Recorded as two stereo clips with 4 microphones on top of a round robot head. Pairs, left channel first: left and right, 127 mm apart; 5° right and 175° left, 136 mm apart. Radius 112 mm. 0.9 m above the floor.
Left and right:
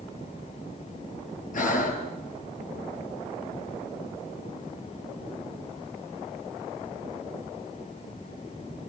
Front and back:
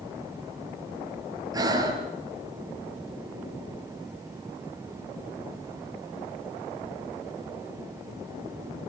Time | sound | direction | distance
1.5 | breathing | 110° left | 3.5 m